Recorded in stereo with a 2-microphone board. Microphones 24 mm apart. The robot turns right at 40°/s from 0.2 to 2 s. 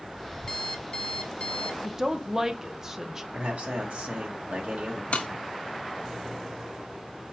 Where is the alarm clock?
40° left, 0.7 m; by 1.7 s 90° left, 0.7 m.